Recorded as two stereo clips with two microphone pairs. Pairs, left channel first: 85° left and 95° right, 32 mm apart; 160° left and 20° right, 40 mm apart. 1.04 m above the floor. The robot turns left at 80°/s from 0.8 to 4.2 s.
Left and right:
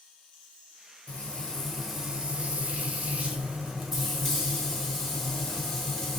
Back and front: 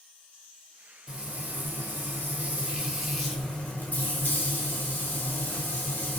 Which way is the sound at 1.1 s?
50° left.